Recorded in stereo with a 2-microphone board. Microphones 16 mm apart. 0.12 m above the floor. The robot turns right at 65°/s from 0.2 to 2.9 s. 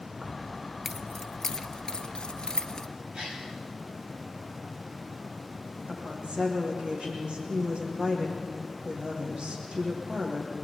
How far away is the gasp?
About 5.5 m.